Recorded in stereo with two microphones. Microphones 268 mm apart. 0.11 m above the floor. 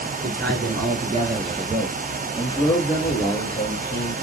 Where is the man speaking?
45° right (ahead or behind), 1.5 m; by 4.1 s 40° left (ahead or behind), 2 m.